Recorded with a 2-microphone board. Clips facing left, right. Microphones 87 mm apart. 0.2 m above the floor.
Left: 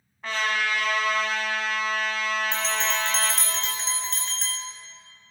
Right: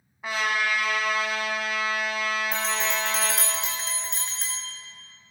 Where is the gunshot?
No gunshot in this recording.